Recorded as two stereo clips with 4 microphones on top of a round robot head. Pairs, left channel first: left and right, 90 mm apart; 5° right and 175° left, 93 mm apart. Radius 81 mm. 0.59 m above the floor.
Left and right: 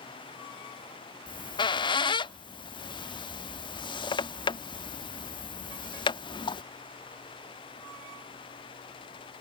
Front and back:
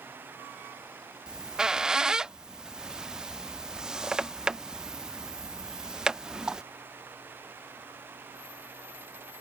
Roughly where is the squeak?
Left.